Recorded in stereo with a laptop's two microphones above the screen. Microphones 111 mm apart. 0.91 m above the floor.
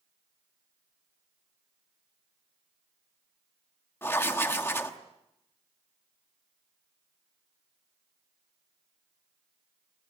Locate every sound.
4.0 s writing: 20° left (ahead or behind), 1.1 m